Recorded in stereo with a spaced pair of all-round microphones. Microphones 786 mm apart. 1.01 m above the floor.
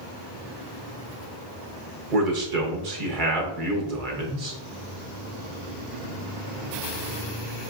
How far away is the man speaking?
About 1.2 m.